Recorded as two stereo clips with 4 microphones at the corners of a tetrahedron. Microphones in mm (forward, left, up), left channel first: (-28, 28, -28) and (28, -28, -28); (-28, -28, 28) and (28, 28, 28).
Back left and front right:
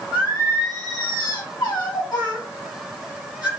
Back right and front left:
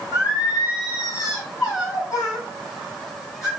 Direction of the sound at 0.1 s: 170° left.